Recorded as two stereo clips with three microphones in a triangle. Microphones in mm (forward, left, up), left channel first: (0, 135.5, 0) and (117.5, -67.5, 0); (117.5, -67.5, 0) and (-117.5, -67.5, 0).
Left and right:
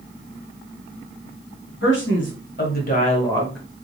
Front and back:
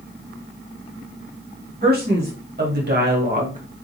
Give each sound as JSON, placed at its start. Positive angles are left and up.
{"t": 1.8, "sound": "a man speaking", "azimuth_deg": 140, "distance_m": 2.5}